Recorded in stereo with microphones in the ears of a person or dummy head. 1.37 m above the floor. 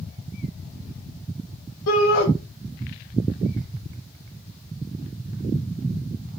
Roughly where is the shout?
Left.